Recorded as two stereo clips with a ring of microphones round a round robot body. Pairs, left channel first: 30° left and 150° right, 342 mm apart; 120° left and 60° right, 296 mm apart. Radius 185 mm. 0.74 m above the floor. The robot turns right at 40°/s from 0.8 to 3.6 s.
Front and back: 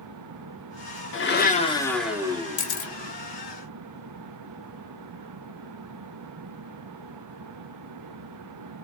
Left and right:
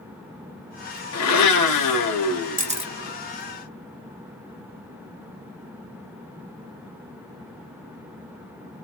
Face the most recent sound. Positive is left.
turn(degrees=40)